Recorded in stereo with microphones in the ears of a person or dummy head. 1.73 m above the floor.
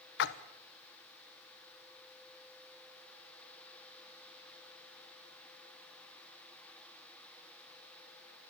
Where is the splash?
65° left (ahead or behind), 1.2 m.